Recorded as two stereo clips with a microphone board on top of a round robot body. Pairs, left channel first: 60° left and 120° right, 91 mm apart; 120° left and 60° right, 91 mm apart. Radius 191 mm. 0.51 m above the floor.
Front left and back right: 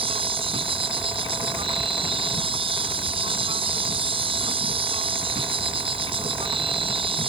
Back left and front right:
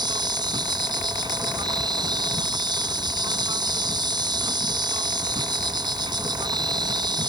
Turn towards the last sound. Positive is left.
turn(degrees=-100)